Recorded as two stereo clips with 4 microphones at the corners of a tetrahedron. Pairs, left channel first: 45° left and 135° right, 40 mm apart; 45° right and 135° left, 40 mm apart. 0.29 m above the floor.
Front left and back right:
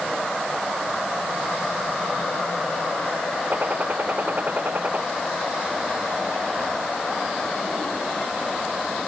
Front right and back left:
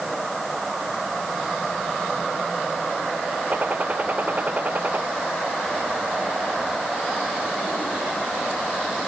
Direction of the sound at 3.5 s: 175° right.